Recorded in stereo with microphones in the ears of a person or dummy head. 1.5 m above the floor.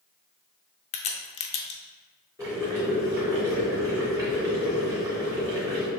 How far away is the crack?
About 0.7 m.